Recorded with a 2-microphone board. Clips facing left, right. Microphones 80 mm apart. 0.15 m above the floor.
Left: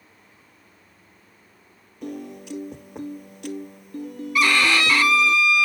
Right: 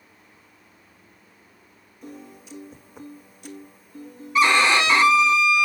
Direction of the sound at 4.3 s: 20° right (ahead or behind).